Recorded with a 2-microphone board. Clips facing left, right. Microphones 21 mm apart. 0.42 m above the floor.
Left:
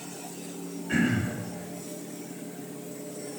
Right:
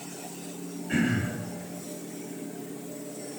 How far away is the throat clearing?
About 2 m.